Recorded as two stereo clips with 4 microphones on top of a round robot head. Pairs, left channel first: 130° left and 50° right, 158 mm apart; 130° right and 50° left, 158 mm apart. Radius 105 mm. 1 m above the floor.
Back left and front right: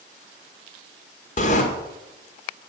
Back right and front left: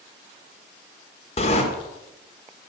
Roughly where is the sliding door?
Behind.